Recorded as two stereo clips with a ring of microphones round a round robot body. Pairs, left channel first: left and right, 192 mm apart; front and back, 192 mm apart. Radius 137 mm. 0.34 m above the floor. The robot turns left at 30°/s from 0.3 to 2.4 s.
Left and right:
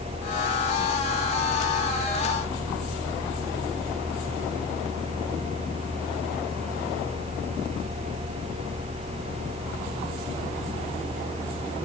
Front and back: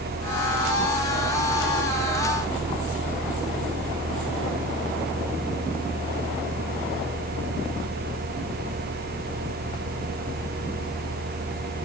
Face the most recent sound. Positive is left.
No sound to turn to.